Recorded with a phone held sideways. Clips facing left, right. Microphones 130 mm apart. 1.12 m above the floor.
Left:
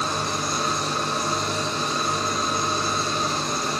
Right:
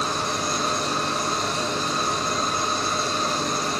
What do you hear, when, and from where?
0.0 s an engine running: 65° right (ahead or behind), 3.5 m